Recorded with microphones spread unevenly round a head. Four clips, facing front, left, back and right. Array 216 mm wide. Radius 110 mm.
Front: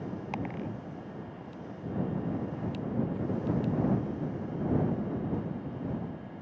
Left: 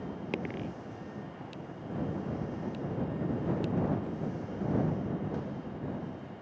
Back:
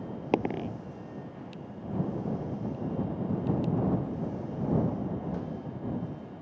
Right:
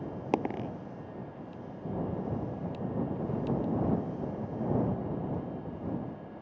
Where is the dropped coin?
160° right.